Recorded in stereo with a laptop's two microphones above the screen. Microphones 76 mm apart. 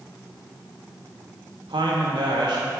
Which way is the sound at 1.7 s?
80° right.